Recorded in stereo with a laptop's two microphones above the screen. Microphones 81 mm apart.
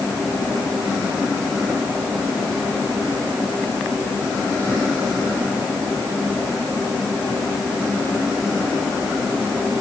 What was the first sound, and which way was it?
Only background noise.